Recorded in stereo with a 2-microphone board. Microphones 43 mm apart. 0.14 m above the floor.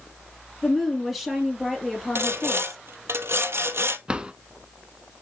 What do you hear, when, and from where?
0.6 s a woman speaking: 10° right (ahead or behind), 3.5 m
2.1 s sawing: 70° right (ahead or behind), 1.0 m
4.1 s a drawer: 25° right (ahead or behind), 0.6 m